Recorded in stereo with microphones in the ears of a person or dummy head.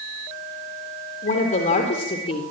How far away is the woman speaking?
About 3.5 m.